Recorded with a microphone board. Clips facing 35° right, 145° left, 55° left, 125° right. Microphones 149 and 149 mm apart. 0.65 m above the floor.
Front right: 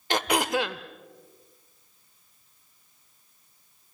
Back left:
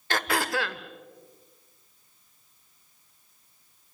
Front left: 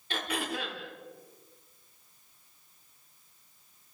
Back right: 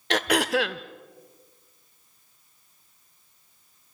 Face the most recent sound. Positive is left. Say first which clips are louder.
# front right 3 dB, back right 11 dB
turn(degrees=-105)